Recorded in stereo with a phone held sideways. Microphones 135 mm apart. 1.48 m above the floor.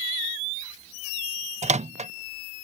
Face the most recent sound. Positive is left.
turn(degrees=-60)  # may be behind; listen again after turning